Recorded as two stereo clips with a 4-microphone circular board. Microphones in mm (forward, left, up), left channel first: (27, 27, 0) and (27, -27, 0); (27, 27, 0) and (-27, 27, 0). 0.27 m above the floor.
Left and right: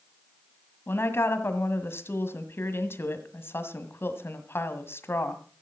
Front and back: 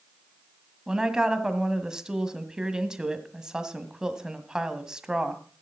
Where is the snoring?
No snoring in this recording.